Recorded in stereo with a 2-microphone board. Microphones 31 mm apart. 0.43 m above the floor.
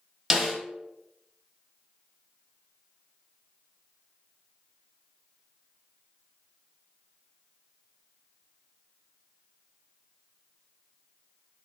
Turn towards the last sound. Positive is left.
turn(degrees=-15)  # may be behind; listen again after turning